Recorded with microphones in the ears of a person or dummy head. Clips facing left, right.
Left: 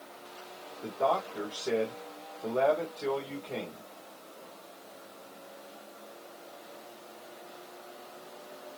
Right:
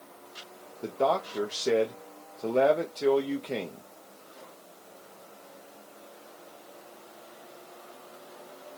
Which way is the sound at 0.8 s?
45° right (ahead or behind).